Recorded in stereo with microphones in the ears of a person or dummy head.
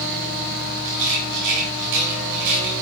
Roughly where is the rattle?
Right.